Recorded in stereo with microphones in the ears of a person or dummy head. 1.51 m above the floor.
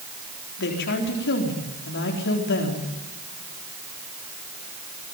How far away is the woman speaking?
About 4 m.